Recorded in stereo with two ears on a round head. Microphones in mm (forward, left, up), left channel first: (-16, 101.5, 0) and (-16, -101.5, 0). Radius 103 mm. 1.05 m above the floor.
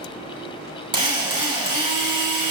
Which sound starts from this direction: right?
A drill, at 0.9 s.